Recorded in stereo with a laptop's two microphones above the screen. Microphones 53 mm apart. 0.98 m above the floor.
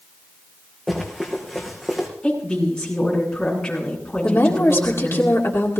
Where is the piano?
I don't hear a piano.